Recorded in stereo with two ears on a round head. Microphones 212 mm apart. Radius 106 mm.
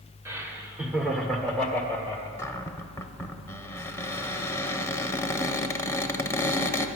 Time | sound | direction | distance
0.2 | laughter | 10° right (ahead or behind) | 1.6 m
2.4 | a cupboard door | 10° left (ahead or behind) | 0.6 m